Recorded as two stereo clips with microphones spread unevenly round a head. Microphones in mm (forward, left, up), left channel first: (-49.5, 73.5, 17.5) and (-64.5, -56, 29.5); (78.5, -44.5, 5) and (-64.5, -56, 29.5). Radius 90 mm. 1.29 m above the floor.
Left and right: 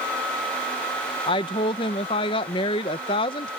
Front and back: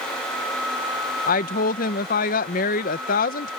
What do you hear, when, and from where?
1.3 s a woman speaking: 25° left